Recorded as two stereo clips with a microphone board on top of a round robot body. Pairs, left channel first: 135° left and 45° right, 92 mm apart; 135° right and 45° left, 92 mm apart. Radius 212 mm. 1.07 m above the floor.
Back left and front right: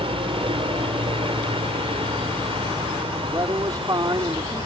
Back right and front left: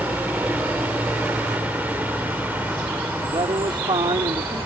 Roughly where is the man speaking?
Ahead.